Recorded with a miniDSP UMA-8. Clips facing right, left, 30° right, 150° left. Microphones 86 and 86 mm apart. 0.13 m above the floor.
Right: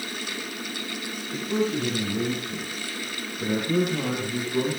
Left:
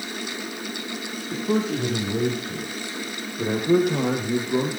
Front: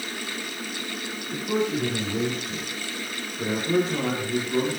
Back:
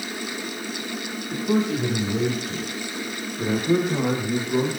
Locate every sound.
1.3 s a man speaking: 80° left, 7 m; by 4.8 s 70° left, 5.5 m